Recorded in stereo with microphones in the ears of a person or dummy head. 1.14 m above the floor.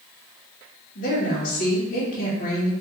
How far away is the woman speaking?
About 0.8 m.